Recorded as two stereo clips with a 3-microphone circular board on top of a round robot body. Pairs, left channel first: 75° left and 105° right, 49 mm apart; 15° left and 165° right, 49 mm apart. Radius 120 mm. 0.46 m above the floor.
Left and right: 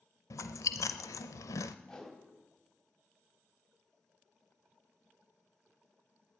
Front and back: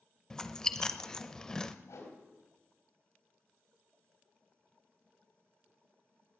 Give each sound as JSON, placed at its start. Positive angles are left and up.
{"t": 0.3, "sound": "chewing", "azimuth_deg": 95, "distance_m": 0.6}
{"t": 1.9, "sound": "a whoosh", "azimuth_deg": 5, "distance_m": 3.5}